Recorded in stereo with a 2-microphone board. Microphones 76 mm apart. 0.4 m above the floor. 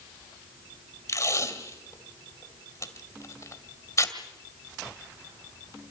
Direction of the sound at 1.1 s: 45° left (ahead or behind).